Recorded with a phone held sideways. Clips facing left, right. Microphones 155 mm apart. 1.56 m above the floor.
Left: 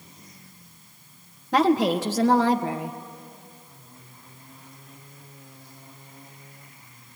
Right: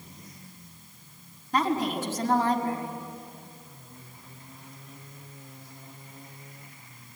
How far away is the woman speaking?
About 1.6 m.